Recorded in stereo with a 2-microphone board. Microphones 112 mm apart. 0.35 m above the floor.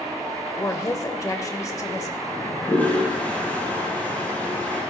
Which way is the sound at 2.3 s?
15° left (ahead or behind).